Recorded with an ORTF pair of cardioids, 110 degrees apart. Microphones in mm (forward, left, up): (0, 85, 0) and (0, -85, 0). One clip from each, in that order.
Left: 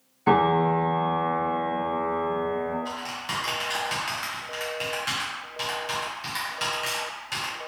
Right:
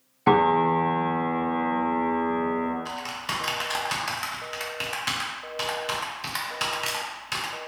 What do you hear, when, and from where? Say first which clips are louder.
0.3 s a piano: right 1 dB; 30° right, 1.1 m
2.9 s typing on a keyboard: even; 25° right, 0.8 m